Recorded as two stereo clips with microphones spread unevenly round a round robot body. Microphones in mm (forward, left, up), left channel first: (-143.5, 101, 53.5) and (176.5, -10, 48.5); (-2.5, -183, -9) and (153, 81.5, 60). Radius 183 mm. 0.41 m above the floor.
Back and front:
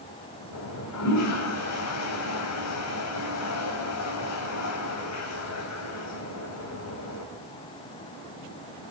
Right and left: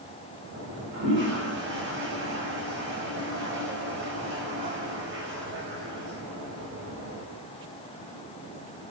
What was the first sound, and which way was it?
A toilet flushing, 125° left.